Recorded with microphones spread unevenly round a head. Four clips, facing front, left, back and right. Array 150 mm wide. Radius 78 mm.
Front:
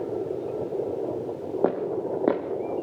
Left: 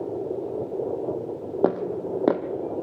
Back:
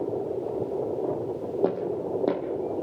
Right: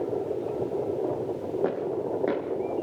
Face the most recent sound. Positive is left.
turn(degrees=70)